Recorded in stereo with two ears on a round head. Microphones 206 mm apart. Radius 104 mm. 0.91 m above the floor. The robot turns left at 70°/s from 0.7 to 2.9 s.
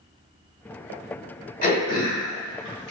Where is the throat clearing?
40° left (ahead or behind), 1.3 m; by 2.9 s 45° left (ahead or behind), 1.3 m.